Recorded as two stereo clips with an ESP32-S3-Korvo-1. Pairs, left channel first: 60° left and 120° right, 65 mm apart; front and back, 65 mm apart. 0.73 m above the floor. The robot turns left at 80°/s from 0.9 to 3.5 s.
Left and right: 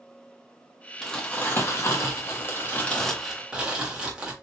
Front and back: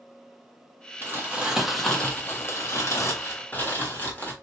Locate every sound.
1.0 s crumpling: 145° left, 1.3 m; by 4.3 s 50° right, 1.3 m